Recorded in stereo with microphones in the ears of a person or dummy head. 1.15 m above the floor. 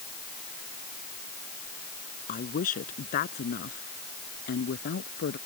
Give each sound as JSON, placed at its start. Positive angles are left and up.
{"t": 2.3, "sound": "a woman speaking", "side_deg": 35}